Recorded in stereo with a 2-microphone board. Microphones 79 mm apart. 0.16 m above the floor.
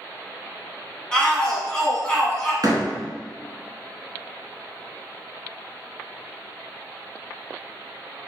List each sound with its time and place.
1.1 s a shout: 10° left (ahead or behind), 1.1 m
2.6 s a door slam: 50° right (ahead or behind), 1.0 m